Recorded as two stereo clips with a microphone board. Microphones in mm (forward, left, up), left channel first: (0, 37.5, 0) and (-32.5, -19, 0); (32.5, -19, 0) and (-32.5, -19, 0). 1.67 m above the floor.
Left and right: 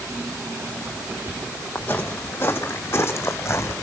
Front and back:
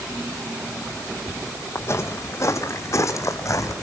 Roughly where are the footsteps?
Ahead.